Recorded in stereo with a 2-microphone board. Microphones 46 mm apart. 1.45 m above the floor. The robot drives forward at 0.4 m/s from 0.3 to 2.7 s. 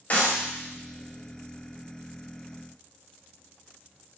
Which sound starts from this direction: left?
A clap, at 0.1 s.